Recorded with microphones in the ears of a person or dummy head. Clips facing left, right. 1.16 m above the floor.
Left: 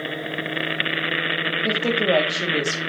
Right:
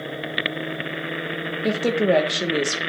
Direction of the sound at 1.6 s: 10° right (ahead or behind).